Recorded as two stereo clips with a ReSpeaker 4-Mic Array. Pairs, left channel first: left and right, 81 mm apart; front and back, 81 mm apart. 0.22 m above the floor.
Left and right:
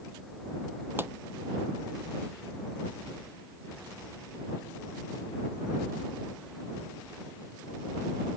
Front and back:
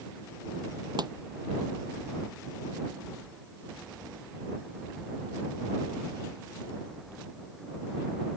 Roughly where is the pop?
Behind right.